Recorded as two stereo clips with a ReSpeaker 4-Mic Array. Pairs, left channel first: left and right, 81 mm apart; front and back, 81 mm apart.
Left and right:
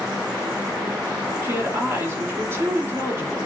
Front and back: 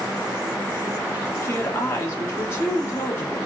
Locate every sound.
1.4 s a woman speaking: 45° right, 0.6 m